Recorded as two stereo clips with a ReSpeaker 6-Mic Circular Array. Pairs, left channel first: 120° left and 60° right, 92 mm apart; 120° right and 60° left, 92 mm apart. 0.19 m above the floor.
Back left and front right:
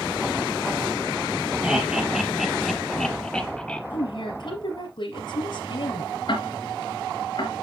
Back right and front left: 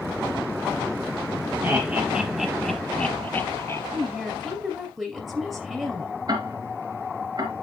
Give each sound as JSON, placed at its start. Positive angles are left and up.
{"t": 1.6, "sound": "laughter", "azimuth_deg": 10, "distance_m": 1.4}
{"t": 3.9, "sound": "a woman speaking", "azimuth_deg": 145, "distance_m": 2.5}
{"t": 6.3, "sound": "ticking", "azimuth_deg": 95, "distance_m": 2.5}